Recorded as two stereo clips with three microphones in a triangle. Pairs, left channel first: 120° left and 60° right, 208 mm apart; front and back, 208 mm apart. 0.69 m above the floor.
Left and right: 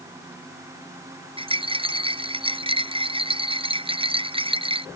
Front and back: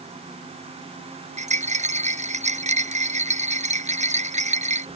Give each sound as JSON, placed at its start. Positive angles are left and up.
{"t": 1.4, "sound": "a rattle", "azimuth_deg": -125}